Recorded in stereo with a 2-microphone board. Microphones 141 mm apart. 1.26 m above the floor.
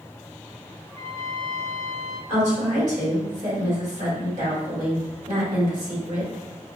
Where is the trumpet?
30° left (ahead or behind), 1.1 m.